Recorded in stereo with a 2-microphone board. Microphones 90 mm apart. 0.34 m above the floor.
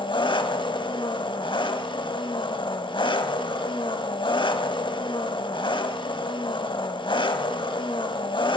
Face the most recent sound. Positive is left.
turn(degrees=70)  # may be behind; listen again after turning